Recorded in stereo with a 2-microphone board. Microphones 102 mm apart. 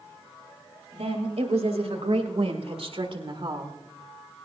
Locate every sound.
0.9 s a woman speaking: 85° right, 3.5 m; by 3.8 s 40° right (ahead or behind), 1.9 m